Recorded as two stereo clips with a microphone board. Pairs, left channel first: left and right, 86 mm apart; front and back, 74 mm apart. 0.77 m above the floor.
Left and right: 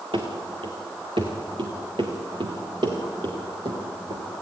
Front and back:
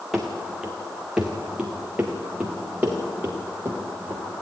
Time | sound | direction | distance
0.1 | running footsteps | 90° right | 3 m